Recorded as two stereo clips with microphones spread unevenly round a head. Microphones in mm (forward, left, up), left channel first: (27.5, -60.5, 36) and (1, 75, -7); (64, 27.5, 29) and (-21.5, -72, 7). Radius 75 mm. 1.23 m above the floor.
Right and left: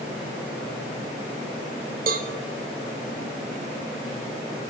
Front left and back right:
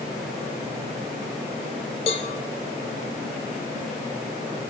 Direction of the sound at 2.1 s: 75° left.